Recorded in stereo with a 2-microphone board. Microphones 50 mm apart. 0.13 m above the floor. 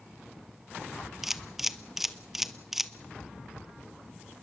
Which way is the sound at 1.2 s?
5° right (ahead or behind).